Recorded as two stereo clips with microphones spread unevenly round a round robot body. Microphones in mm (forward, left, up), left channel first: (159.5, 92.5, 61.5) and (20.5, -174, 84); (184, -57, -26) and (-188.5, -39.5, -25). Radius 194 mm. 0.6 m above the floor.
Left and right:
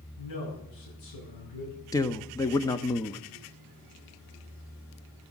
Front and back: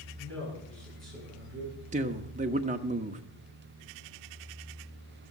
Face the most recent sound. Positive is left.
turn(degrees=120)